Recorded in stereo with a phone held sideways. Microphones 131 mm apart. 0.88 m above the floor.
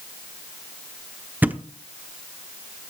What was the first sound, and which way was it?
A thud, 15° right (ahead or behind).